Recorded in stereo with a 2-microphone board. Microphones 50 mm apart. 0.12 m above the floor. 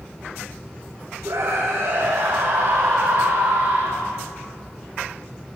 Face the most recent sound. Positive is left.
turn(degrees=-60)  # may be behind; listen again after turning